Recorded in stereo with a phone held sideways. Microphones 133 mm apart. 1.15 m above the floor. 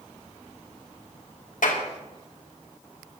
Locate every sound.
1.6 s a clap: 85° left, 2.5 m